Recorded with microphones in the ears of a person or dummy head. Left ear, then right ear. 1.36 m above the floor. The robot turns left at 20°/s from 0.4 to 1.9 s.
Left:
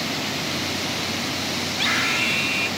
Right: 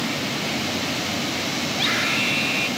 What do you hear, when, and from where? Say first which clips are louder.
1.7 s a scream: left 1 dB; 5° left (ahead or behind); by 2.7 s 10° left (ahead or behind)